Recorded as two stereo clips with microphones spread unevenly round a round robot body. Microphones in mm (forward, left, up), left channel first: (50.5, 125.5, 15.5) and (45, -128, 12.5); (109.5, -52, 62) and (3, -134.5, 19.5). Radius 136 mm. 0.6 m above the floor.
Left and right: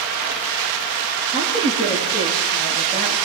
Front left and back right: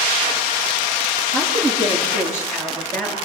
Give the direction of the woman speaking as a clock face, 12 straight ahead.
7 o'clock.